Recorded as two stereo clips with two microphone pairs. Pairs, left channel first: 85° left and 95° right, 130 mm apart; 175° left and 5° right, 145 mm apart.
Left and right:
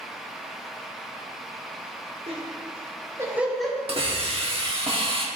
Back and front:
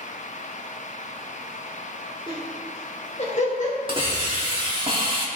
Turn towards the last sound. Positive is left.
turn(degrees=-55)